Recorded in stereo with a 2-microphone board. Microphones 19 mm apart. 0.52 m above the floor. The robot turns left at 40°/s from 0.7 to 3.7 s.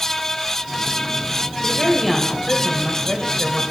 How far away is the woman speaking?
About 2.5 m.